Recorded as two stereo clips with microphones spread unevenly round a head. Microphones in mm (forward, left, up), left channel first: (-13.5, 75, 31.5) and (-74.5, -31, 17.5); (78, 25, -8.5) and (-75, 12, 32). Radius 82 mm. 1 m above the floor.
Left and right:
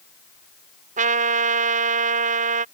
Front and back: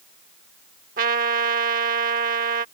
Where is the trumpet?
135° right.